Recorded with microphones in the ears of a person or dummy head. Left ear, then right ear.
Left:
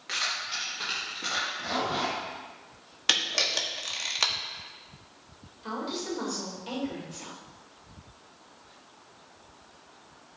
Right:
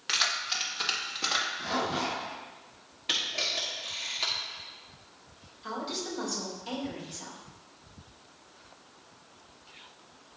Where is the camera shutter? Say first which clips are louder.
Left 4 dB; 45° left (ahead or behind), 1.2 m.